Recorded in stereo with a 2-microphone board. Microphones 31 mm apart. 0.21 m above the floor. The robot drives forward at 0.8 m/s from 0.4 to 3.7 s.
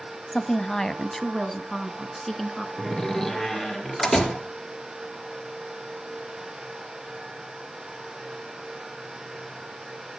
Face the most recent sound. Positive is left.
turn(degrees=15)  # may be behind; listen again after turning